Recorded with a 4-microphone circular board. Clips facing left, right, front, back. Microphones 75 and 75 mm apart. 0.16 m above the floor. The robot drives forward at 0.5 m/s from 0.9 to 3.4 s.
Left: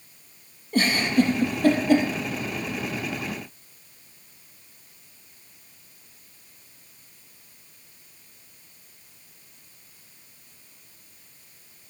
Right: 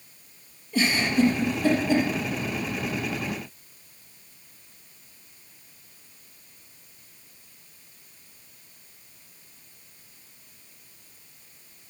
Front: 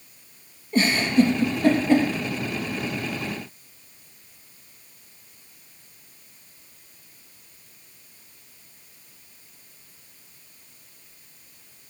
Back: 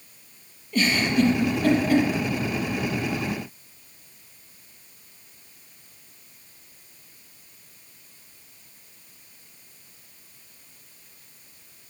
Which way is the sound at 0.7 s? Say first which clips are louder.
Left 2 dB, front 2 dB; 55° left.